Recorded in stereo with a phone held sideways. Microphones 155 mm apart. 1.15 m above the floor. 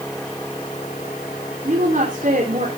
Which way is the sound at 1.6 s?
55° right (ahead or behind).